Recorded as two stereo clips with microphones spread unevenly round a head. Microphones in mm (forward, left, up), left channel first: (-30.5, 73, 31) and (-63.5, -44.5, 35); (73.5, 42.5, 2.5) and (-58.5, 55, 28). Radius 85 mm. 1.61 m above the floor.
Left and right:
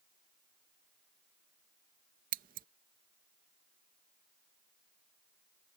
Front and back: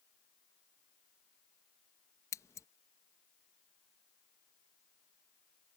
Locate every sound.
2.3 s scissors: 80° right